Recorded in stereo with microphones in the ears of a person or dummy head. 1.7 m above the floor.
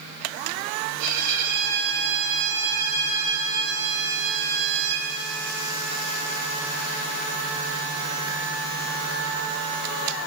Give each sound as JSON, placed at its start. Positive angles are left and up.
{"t": 1.0, "sound": "a violin", "side_deg": -80, "distance_m": 2.0}